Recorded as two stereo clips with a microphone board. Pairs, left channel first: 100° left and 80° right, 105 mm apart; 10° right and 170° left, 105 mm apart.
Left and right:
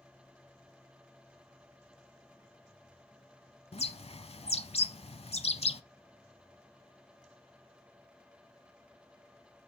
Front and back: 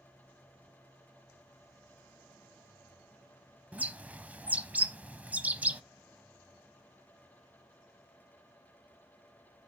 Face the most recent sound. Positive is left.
turn(degrees=95)